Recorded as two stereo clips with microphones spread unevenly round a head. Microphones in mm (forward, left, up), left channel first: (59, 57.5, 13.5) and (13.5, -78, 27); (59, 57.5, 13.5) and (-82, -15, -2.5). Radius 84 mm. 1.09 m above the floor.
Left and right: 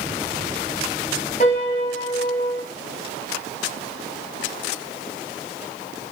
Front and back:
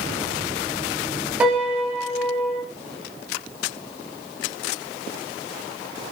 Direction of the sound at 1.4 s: 125° left.